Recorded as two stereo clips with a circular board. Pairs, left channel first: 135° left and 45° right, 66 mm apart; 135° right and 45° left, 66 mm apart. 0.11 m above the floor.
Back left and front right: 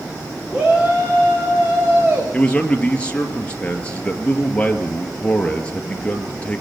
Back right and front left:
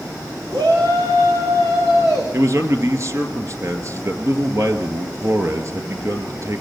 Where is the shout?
30° left, 8.5 m; by 2.2 s 15° left, 8.5 m.